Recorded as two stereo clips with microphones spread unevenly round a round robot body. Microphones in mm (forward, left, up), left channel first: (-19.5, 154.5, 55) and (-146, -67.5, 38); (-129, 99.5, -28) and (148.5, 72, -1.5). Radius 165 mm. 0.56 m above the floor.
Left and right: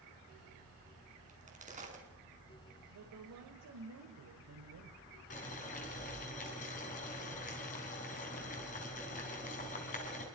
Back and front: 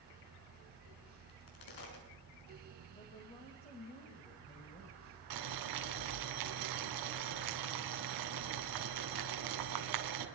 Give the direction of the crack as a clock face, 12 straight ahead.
6 o'clock.